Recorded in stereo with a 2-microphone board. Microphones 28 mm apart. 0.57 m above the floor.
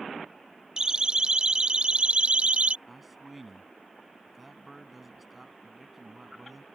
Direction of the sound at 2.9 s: 5° right (ahead or behind).